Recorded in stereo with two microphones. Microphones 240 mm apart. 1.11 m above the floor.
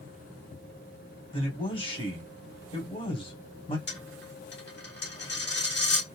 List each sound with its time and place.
1.3 s a man speaking: 20° left (ahead or behind), 1.4 m
3.9 s a dropped coin: 45° left (ahead or behind), 1.2 m